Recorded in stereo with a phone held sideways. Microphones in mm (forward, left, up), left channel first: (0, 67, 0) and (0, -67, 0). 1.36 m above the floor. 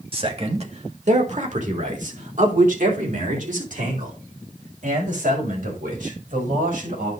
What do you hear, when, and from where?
0.1 s a man speaking: 40° right (ahead or behind), 1.8 m; by 7.1 s 85° right, 6 m